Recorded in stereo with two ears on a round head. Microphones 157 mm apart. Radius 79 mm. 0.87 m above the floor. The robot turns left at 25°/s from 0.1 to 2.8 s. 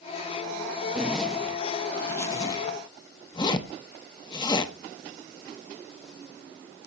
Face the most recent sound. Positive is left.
turn(degrees=25)  # may be behind; listen again after turning